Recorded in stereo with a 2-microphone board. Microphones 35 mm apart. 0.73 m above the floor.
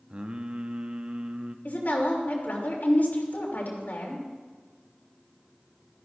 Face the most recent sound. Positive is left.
turn(degrees=70)  # may be behind; listen again after turning